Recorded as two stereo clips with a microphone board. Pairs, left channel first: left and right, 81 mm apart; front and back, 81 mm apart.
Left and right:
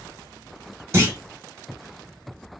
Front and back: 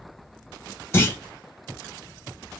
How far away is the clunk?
About 1.0 m.